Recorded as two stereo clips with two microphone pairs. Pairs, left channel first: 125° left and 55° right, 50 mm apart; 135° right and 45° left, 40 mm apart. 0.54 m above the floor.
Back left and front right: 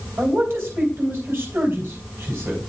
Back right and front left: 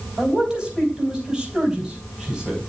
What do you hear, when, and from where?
0.2 s a man speaking: 15° right, 3.5 m